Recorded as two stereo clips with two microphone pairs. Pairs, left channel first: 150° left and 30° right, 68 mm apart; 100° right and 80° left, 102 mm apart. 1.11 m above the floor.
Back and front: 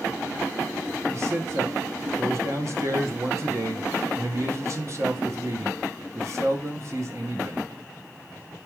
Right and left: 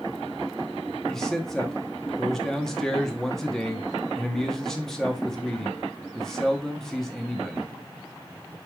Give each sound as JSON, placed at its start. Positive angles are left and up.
{"t": 1.1, "sound": "a man speaking", "azimuth_deg": -15, "distance_m": 0.8}